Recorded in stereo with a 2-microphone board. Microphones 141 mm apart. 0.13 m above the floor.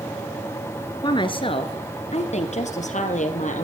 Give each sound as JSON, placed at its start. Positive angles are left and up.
{"t": 1.0, "sound": "a woman speaking", "side_deg": 30, "distance_m": 1.5}